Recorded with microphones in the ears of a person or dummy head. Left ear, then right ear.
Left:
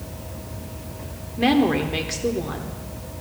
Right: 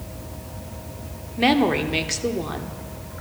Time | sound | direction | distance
1.4 | a woman speaking | 20° right (ahead or behind) | 0.7 m